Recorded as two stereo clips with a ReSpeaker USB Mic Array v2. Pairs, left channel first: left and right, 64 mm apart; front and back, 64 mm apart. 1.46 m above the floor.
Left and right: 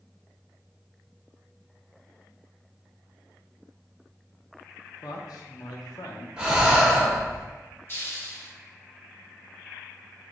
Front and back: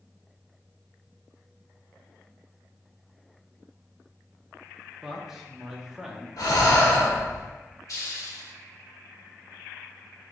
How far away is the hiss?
About 0.9 m.